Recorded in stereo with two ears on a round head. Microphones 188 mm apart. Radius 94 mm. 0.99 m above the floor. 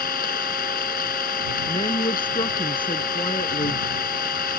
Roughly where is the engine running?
Left.